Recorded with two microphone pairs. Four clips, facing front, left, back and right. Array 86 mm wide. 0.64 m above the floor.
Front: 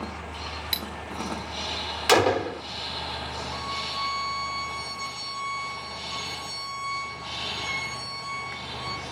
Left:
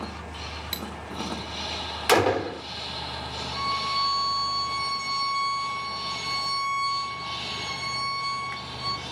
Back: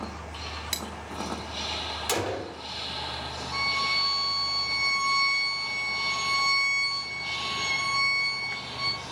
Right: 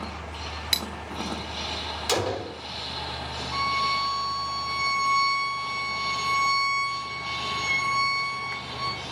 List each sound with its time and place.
0.7 s cutlery clinking: 90° right, 0.6 m
2.1 s a gunshot: 50° left, 1.5 m
3.5 s a violin: 125° right, 5.5 m